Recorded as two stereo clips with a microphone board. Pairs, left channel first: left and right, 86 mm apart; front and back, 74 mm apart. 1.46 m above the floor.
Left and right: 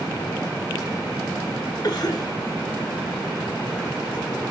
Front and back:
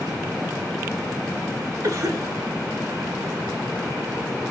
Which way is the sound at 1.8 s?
130° left.